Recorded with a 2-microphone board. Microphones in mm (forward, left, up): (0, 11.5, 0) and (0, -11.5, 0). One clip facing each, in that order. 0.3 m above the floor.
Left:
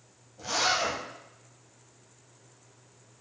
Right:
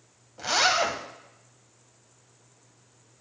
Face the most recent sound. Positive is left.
turn(degrees=-45)  # may be behind; listen again after turning